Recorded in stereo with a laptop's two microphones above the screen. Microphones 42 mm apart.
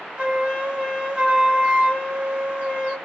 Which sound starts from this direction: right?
A flute, at 0.2 s.